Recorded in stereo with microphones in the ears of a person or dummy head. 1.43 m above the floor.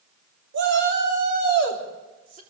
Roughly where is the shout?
Right.